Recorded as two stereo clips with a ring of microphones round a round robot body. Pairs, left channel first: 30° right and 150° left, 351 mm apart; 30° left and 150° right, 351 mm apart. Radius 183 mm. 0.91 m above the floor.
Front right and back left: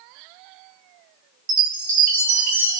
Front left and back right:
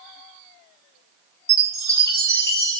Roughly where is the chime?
Left.